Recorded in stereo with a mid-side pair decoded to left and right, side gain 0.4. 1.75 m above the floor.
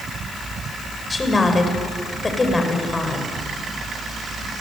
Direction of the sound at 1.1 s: 25° left.